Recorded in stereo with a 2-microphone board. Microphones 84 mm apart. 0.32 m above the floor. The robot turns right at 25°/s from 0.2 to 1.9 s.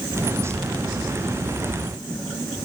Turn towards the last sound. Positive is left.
No sound to turn to.